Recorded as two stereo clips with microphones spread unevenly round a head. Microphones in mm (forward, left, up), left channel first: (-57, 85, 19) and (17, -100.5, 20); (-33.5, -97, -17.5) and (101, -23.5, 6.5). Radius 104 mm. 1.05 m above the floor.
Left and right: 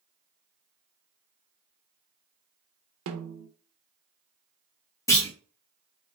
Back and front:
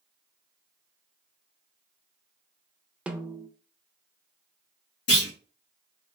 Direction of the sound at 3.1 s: 60° right.